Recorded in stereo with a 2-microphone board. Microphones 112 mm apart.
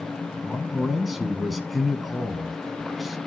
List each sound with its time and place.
0.4 s a man speaking: centre (ahead or behind), 1.0 m